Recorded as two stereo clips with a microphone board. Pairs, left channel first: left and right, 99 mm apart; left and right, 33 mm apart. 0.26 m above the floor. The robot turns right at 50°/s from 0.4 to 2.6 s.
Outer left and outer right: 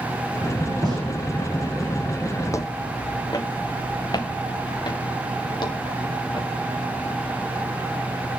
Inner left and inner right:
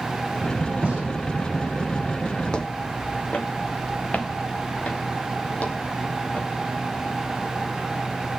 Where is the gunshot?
45° right (ahead or behind), 10 m; by 1.0 s 35° right (ahead or behind), 10 m.